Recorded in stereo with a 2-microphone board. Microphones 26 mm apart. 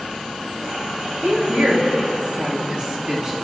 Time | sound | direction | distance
1.2 | a woman speaking | 85° right | 3.5 m